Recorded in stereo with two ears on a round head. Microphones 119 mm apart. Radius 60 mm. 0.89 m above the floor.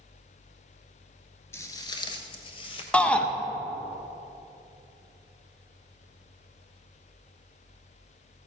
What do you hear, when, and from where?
1.5 s footsteps: 20° left (ahead or behind), 1.0 m; by 2.8 s 40° left (ahead or behind), 1.5 m
2.9 s a shout: 10° left (ahead or behind), 0.7 m